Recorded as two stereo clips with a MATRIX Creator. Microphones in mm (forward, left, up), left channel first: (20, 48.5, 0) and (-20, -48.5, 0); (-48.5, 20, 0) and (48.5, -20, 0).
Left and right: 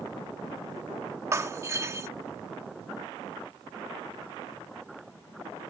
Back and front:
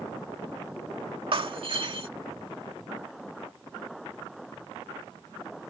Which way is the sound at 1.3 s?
50° right.